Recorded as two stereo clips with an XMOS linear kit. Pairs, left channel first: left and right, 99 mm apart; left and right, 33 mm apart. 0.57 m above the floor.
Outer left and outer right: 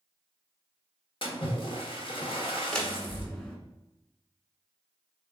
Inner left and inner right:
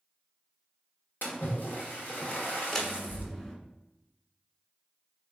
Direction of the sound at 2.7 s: 15° left (ahead or behind).